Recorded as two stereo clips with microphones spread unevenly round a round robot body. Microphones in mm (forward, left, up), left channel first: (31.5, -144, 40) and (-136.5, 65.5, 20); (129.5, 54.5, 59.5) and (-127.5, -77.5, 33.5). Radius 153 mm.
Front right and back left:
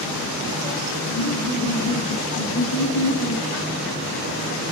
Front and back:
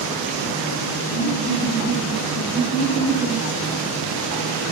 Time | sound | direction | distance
1.1 | laughter | 70° right | 7.5 m